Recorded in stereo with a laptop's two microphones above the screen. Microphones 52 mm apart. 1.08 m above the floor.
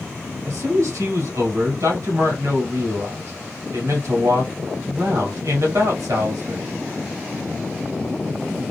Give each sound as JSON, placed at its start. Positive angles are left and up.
{"t": 0.5, "sound": "a man speaking", "side_deg": -80, "distance_m": 2.0}